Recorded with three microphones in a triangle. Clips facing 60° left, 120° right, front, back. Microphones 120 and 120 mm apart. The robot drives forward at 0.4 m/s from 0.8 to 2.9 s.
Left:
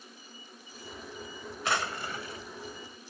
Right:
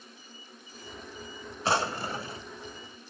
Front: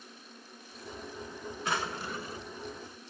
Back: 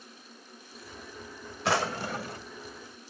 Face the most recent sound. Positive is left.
turn(degrees=-175)